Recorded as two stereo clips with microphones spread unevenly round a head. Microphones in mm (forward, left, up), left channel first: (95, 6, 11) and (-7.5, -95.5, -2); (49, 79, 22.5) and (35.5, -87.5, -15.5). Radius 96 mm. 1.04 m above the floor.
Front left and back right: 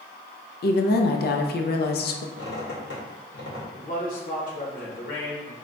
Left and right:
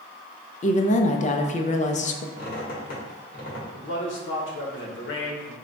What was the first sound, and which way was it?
A woman speaking, 35° left.